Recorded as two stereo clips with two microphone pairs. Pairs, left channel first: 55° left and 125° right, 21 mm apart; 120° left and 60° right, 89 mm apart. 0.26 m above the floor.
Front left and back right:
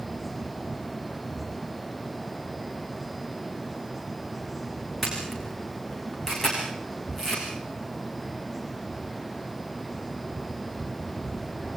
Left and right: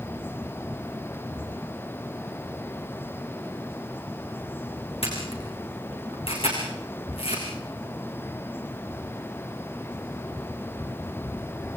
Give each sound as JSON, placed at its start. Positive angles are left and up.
{"t": 5.0, "sound": "a camera shutter", "azimuth_deg": 120, "distance_m": 8.0}